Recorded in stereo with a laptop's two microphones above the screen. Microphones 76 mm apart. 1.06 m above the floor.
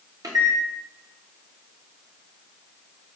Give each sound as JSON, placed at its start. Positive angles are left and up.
{"t": 0.2, "sound": "a microwave", "side_deg": -55, "distance_m": 0.7}